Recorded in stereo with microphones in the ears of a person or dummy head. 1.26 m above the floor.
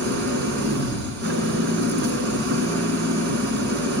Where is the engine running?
60° right (ahead or behind), 4 m.